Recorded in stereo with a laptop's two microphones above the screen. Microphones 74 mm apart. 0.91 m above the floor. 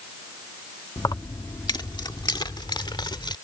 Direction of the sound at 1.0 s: 55° left (ahead or behind).